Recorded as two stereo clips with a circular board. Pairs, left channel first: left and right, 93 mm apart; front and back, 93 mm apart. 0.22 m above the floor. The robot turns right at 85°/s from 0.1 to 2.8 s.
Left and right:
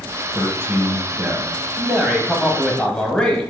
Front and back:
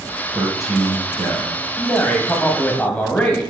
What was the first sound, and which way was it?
A man speaking, 120° right.